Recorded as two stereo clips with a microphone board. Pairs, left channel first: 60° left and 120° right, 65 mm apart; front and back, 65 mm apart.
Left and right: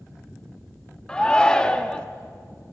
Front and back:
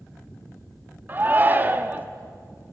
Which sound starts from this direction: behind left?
A shout, at 1.1 s.